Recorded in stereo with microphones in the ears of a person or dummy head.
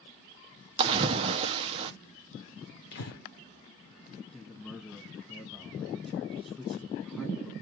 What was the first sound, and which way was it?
A splash, 30° right (ahead or behind).